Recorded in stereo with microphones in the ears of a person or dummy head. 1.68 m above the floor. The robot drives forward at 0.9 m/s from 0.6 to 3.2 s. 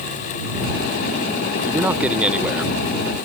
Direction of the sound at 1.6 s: 5° right (ahead or behind).